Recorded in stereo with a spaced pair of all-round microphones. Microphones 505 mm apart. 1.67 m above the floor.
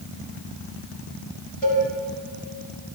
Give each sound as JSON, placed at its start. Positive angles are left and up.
{"t": 1.6, "sound": "a cowbell", "side_deg": -60, "distance_m": 6.0}